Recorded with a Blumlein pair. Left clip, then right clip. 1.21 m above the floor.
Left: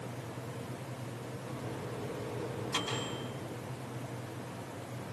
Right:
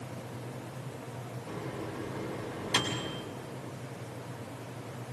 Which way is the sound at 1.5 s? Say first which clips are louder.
Right 4 dB; 25° right.